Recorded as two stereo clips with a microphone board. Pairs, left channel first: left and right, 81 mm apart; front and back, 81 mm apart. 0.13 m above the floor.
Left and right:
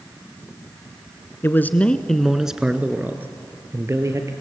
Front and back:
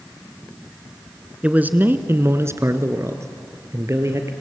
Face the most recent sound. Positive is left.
turn(degrees=-130)